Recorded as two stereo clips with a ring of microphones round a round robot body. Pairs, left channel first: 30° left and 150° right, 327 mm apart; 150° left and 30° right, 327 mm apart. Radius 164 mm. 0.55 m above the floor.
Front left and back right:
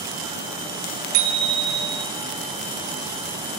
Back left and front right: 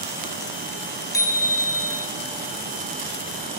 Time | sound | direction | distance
1.1 | a bicycle bell | 130° right | 3 m